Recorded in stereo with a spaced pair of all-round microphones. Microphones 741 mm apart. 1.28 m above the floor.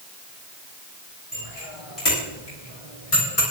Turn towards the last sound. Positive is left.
turn(degrees=55)  # may be behind; listen again after turning